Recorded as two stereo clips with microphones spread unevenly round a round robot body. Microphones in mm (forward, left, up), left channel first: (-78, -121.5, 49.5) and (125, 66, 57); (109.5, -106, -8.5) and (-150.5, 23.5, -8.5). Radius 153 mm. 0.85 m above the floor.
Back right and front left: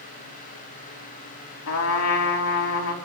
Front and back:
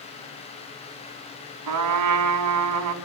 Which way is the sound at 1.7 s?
Straight behind.